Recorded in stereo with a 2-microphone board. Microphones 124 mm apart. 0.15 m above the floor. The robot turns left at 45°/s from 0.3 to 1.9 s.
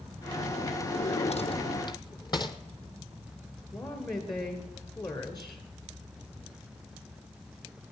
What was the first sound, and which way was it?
A drawer, 80° left.